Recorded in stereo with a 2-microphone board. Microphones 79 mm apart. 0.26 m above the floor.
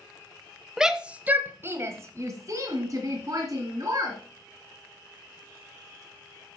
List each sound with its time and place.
0.8 s a shout: 5° right (ahead or behind), 1.0 m; by 4.2 s 45° right (ahead or behind), 2.5 m